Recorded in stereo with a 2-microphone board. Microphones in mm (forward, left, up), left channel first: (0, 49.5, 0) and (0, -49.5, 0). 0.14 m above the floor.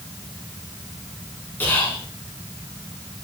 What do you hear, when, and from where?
1.6 s whispering: 20° left (ahead or behind), 1.1 m